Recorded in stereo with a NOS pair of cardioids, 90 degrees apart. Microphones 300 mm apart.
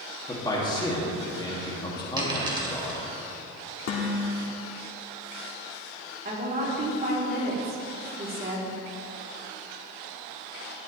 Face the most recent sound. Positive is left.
turn(degrees=-30)